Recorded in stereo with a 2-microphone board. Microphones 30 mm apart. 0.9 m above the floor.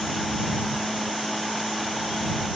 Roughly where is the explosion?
No explosion in this recording.